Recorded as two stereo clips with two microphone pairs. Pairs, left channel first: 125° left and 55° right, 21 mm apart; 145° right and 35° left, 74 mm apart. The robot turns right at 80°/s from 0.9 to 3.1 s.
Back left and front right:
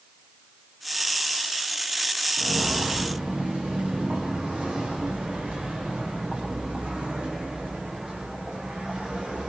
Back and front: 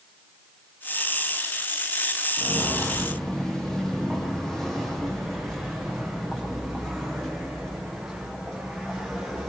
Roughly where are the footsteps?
Behind right.